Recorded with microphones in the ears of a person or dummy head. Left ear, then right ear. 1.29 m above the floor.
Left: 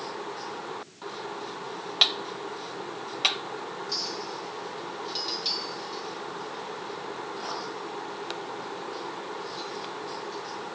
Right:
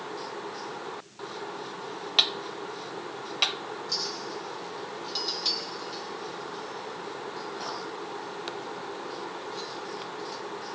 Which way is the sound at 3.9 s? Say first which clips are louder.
Right 1 dB; centre (ahead or behind).